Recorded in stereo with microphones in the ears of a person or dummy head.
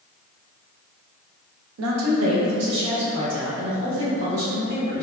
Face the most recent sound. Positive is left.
turn(degrees=-80)